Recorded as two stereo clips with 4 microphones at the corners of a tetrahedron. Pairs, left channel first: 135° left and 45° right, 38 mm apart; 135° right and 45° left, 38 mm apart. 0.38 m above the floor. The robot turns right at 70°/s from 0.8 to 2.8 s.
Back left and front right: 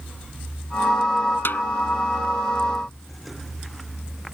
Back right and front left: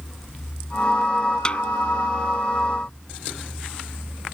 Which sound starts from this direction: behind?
A snare drum, at 1.4 s.